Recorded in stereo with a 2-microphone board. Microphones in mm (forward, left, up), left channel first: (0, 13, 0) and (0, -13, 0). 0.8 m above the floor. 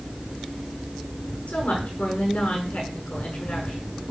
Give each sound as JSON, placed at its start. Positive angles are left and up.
{"t": 1.5, "sound": "a woman speaking", "side_deg": 65, "distance_m": 7.5}